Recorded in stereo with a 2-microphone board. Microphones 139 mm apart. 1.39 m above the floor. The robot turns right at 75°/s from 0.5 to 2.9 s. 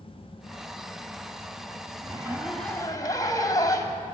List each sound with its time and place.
2.0 s a zipper: 35° right, 2.5 m; by 4.0 s 30° left, 2.5 m